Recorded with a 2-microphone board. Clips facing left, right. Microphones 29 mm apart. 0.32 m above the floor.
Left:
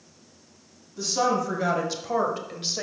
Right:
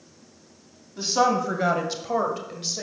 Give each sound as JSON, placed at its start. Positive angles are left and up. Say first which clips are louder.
{"t": 1.0, "sound": "a woman speaking", "louder": "right 3 dB", "side_deg": -35, "distance_m": 2.0}